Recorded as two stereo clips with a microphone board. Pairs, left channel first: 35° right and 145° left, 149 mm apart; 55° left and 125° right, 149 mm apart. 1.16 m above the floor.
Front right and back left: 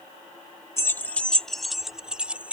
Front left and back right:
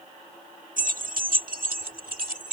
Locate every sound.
0.8 s keys jangling: 105° right; by 2.5 s 135° right